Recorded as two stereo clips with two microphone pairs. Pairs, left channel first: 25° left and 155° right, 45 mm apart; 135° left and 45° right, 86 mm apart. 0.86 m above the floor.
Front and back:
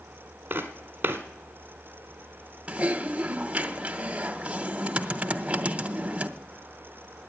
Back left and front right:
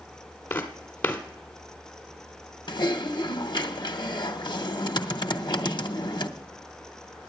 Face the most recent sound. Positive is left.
turn(degrees=140)